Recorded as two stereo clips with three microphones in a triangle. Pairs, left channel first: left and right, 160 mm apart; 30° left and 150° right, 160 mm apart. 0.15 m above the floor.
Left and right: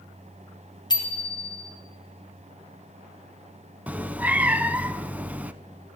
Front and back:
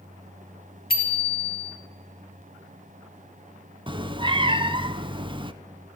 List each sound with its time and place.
0.9 s a bicycle bell: 30° left, 2.5 m
3.9 s a cat meowing: 165° right, 0.6 m